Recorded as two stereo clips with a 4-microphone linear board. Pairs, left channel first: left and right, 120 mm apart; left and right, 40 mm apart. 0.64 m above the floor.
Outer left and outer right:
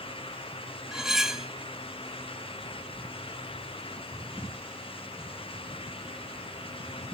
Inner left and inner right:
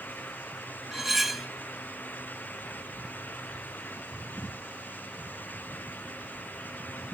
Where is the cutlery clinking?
5° right (ahead or behind), 1.3 m.